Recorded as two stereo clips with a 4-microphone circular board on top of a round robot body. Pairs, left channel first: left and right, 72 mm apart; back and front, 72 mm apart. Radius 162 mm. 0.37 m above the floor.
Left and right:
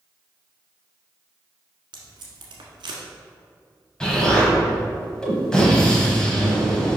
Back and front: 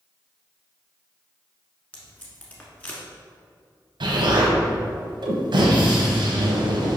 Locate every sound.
1.9 s tape being pulled: 110° right, 1.1 m
4.0 s an explosion: 10° left, 1.3 m